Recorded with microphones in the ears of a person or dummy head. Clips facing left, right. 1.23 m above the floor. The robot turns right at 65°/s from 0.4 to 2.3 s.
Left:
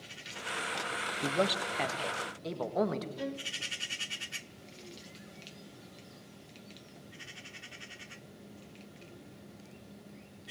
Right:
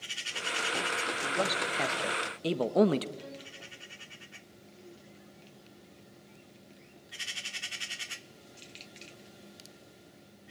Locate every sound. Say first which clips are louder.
1.2 s a man speaking: left 3 dB; 145° left, 1.7 m; by 3.1 s 145° right, 1.7 m
3.2 s a violin: left 7 dB; 65° left (ahead or behind), 1.5 m